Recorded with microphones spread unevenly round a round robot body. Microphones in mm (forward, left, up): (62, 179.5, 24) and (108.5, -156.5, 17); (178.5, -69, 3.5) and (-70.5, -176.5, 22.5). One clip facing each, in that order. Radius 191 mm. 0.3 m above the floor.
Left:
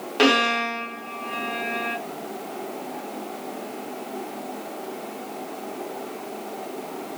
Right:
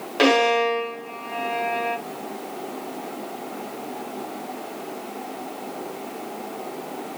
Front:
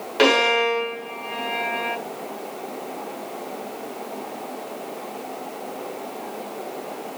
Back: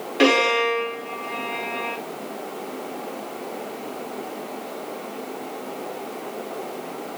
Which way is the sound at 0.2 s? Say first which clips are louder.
Right 3 dB, even; 15° left.